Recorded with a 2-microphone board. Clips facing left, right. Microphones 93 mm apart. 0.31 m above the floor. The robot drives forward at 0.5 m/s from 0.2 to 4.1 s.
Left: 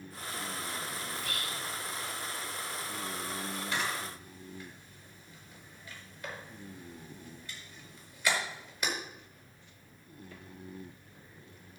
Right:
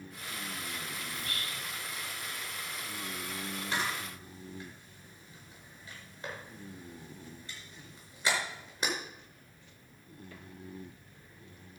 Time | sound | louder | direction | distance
1.1 | whispering | left 2 dB | 30° right (ahead or behind) | 2.5 m
3.7 | a camera shutter | right 1 dB | 35° right (ahead or behind) | 4.5 m